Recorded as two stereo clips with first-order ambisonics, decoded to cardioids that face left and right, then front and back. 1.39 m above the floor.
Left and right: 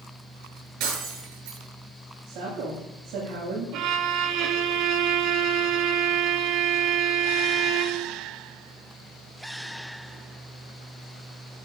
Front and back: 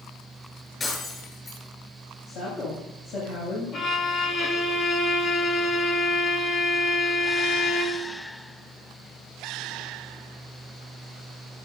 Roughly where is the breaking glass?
Right.